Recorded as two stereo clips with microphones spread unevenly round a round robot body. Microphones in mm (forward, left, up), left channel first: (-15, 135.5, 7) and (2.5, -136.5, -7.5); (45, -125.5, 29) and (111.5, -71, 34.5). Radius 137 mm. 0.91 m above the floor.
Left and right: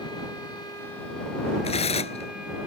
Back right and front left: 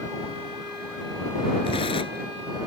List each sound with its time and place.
1.6 s tearing paper: 165° left